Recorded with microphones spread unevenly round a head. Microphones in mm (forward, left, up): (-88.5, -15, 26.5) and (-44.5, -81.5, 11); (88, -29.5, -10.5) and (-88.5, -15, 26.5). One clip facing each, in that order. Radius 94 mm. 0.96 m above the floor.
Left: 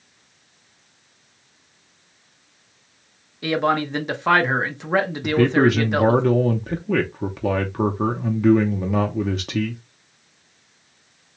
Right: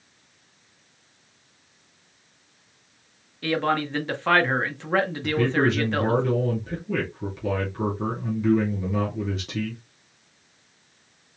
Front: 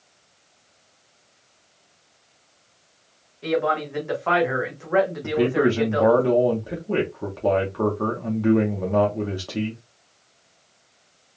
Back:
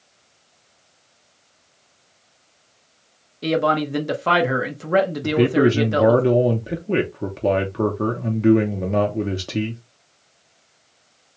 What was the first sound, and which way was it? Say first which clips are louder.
A man speaking: left 3 dB, back 3 dB; 160° right.